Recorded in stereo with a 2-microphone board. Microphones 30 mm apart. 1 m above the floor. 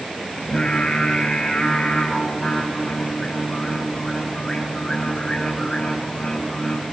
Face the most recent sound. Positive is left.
turn(degrees=25)  # may be behind; listen again after turning